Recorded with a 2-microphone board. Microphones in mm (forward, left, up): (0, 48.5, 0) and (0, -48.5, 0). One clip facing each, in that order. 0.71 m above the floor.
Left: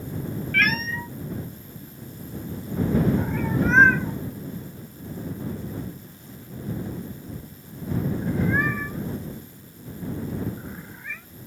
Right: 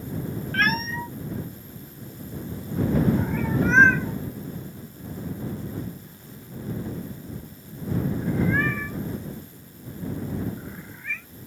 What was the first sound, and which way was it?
A cat meowing, 35° right (ahead or behind).